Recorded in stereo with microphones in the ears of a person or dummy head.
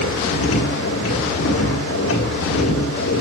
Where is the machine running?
80° left, 1.7 m.